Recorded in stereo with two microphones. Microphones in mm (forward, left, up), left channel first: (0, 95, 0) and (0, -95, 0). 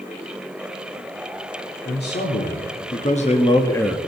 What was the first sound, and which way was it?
A man speaking, 65° left (ahead or behind).